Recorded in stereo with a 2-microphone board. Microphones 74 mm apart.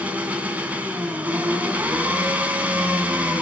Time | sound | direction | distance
0.0 | an engine running | 20° right (ahead or behind) | 3.5 m